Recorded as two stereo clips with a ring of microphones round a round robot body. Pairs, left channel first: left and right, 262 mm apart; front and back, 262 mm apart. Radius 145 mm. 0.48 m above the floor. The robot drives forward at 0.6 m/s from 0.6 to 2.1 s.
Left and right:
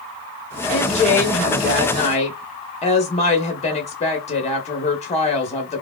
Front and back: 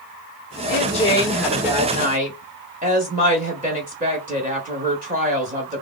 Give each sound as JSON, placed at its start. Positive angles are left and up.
{"t": 0.7, "sound": "a woman speaking", "azimuth_deg": 35, "distance_m": 0.9}